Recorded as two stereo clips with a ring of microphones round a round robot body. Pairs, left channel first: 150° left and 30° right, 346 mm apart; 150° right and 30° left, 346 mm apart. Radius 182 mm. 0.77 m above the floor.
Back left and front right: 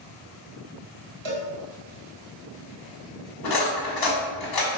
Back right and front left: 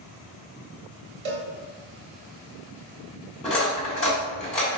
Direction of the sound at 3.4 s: 125° left.